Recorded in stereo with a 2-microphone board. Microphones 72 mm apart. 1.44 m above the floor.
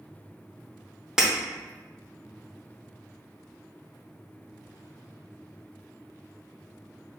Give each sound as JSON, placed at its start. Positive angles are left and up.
{"t": 1.2, "sound": "breaking glass", "side_deg": -10, "distance_m": 0.6}